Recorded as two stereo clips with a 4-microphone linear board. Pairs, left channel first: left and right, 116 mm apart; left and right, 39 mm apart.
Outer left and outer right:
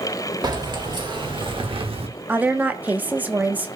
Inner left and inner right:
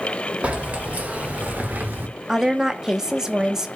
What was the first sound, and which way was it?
Keys jangling, 35° right (ahead or behind).